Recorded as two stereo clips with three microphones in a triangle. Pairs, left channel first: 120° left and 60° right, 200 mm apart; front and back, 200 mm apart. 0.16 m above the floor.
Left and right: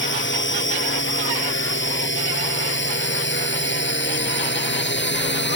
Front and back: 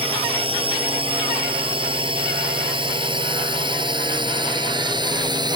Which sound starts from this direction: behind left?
A drone, at 0.0 s.